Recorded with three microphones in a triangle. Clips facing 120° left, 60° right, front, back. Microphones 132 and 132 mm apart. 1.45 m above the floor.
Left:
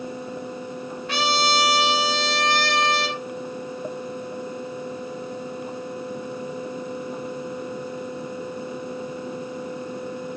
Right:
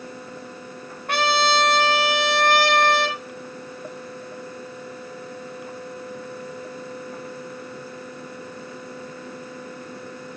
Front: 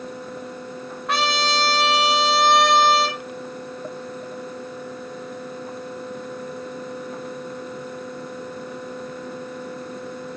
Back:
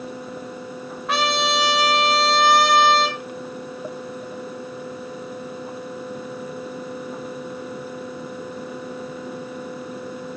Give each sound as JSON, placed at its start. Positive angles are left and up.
{"t": 1.1, "sound": "a trumpet", "azimuth_deg": -90, "distance_m": 1.1}